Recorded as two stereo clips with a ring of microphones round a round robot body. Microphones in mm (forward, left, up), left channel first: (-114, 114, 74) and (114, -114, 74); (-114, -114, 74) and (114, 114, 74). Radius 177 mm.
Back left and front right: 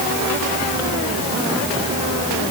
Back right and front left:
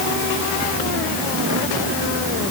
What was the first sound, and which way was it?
Only background noise.